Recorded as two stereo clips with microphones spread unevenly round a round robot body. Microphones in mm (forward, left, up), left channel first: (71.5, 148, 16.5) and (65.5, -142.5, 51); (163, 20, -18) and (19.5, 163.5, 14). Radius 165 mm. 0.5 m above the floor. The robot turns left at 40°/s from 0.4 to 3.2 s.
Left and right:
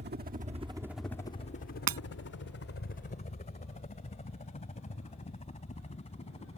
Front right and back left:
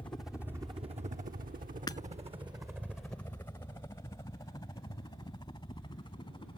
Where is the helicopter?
105° right; by 6.6 s 20° left.